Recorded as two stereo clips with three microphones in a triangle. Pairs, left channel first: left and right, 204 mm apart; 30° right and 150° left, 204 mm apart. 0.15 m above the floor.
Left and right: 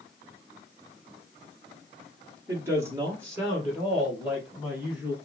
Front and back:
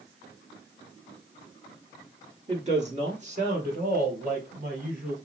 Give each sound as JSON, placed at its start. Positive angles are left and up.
{"t": 2.5, "sound": "a woman speaking", "azimuth_deg": -165, "distance_m": 2.0}